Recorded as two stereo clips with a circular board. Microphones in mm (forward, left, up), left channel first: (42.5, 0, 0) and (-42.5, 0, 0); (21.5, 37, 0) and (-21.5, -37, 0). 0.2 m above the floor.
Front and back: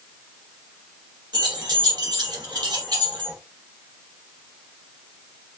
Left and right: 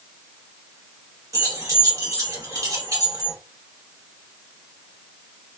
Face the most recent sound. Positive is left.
turn(degrees=-165)